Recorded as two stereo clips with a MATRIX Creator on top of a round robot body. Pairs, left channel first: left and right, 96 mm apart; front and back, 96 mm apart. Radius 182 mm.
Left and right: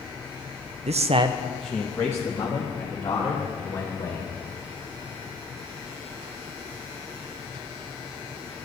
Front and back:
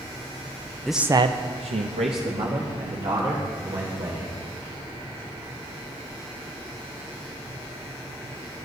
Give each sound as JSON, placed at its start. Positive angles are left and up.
{"t": 0.9, "sound": "a man speaking", "azimuth_deg": -85, "distance_m": 0.7}